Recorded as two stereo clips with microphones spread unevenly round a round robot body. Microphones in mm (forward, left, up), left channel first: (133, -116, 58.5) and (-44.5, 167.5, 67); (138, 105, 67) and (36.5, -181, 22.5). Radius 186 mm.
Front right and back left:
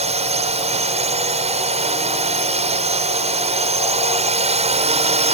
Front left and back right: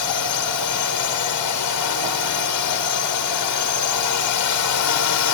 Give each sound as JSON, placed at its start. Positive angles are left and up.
{"t": 0.0, "sound": "a drone", "azimuth_deg": 50}